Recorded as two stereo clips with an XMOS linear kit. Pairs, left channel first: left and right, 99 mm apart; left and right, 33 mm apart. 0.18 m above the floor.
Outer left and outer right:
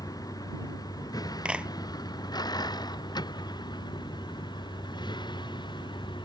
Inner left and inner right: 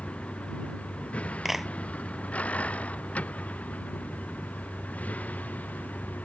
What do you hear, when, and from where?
0.0 s a vehicle: 40° left (ahead or behind); by 6.3 s 50° left (ahead or behind)
1.4 s a clap: 10° right (ahead or behind)